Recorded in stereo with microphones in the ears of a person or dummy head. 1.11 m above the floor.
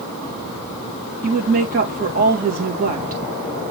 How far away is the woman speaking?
About 2 m.